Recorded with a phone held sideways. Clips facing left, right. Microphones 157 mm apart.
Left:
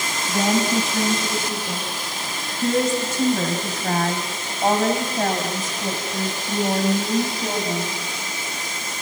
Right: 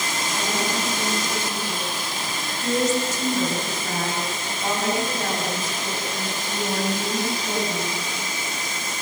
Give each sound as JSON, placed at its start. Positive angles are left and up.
{"t": 0.3, "sound": "a woman speaking", "side_deg": 75, "distance_m": 6.5}